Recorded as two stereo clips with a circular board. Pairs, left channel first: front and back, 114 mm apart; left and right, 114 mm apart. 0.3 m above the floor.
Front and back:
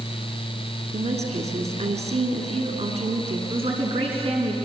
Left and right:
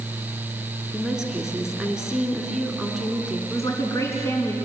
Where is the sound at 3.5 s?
155° left, 3.5 m.